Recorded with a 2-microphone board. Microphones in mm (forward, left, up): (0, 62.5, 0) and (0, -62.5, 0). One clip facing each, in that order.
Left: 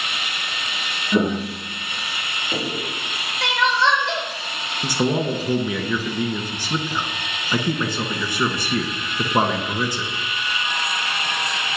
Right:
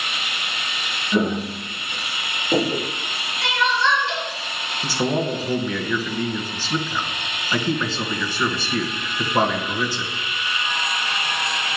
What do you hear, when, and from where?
1.1 s footsteps: 10° left (ahead or behind), 1.1 m; by 2.9 s 40° right (ahead or behind), 1.9 m
3.4 s crying: 80° left, 4.5 m
4.8 s a man speaking: 15° left (ahead or behind), 1.8 m